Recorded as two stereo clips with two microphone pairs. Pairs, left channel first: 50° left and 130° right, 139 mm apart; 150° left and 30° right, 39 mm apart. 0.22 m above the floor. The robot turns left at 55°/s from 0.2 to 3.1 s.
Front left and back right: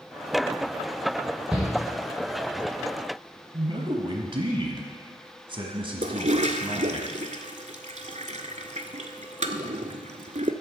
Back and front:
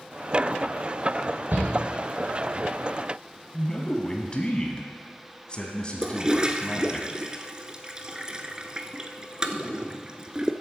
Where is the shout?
45° right, 3 m; by 1.7 s 55° right, 3 m.